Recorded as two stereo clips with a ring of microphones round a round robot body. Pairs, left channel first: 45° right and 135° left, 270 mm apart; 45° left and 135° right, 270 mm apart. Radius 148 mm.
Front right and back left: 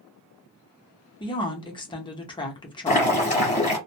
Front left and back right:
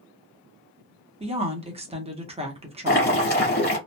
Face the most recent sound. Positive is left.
turn(degrees=10)